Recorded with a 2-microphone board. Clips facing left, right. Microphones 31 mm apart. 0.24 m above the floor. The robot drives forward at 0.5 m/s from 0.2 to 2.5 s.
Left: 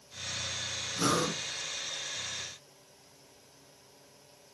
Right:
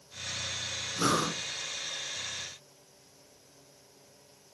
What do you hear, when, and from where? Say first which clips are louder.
1.0 s breathing: right 1 dB; 15° right (ahead or behind), 1.3 m